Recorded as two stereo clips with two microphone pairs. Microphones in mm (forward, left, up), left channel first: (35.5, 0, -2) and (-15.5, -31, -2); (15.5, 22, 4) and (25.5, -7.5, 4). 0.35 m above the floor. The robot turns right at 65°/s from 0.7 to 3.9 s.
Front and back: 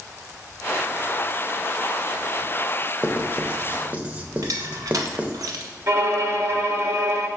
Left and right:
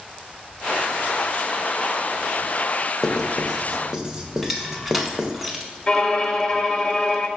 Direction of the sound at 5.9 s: 175° left.